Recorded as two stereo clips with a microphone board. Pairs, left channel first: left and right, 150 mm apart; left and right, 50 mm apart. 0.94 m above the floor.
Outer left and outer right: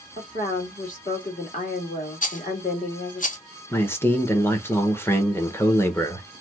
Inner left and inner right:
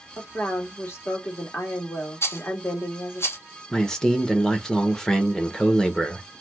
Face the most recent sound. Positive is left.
turn(degrees=15)  # may be behind; listen again after turning